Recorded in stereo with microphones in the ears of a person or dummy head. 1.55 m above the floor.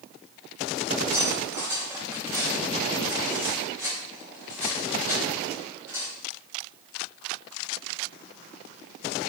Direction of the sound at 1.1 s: 20° right (ahead or behind).